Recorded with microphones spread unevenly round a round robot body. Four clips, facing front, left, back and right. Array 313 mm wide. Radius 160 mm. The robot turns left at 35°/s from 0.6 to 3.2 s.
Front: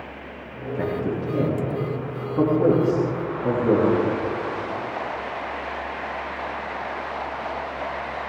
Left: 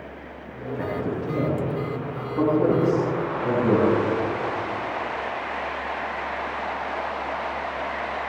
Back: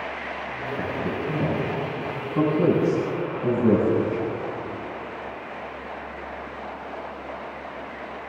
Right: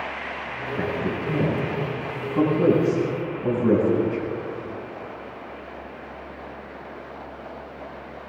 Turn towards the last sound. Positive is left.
turn(degrees=-170)